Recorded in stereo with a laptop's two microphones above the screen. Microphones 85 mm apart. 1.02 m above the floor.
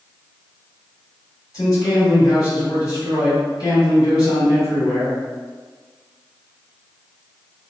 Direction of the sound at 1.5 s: 50° left (ahead or behind).